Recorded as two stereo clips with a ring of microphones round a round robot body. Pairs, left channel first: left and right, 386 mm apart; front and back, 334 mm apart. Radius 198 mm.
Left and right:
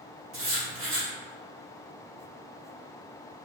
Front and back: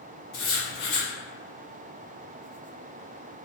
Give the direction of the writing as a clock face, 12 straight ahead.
1 o'clock.